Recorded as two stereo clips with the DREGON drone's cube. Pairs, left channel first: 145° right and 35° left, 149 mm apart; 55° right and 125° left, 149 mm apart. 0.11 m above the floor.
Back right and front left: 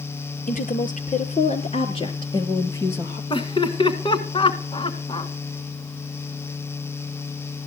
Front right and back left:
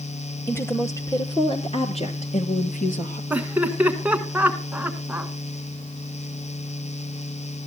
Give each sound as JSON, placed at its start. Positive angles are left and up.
{"t": 0.5, "sound": "a woman speaking", "azimuth_deg": -130, "distance_m": 3.0}
{"t": 3.3, "sound": "laughter", "azimuth_deg": -165, "distance_m": 1.2}